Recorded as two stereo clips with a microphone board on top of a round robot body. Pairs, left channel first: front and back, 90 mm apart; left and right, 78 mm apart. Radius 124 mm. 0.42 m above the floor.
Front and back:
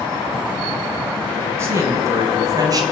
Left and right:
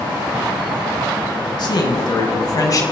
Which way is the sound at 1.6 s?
120° left.